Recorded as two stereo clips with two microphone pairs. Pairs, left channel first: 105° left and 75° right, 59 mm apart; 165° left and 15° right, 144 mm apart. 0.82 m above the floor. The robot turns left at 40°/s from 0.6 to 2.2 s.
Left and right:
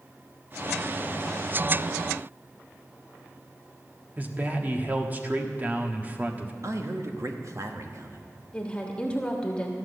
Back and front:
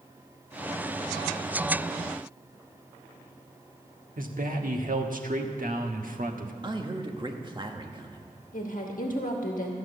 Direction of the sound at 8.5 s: Straight behind.